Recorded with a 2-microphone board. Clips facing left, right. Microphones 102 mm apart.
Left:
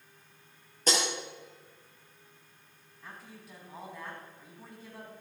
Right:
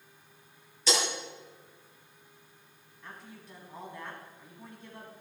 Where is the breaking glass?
50° left (ahead or behind), 5.5 m.